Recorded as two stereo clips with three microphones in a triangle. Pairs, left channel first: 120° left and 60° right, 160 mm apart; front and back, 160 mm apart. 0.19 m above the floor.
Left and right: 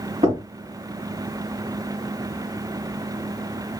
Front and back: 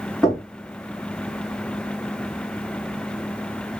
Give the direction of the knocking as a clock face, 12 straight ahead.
3 o'clock.